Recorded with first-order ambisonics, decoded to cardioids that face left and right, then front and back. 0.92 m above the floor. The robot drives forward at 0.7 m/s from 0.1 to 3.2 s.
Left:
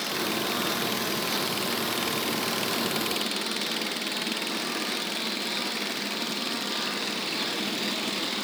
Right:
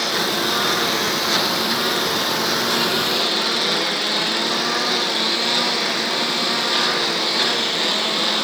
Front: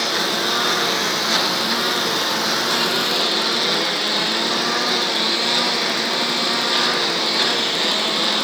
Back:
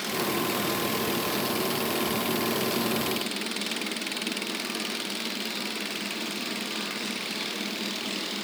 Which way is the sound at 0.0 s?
40° right.